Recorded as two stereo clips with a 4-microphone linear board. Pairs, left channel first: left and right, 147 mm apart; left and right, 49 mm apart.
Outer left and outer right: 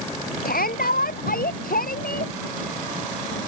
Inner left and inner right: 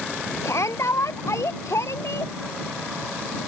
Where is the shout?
80° left; by 2.3 s 75° left (ahead or behind).